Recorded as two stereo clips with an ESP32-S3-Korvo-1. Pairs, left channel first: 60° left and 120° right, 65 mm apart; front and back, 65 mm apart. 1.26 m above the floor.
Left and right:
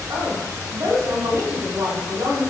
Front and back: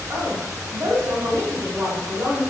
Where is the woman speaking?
145° right, 3 m.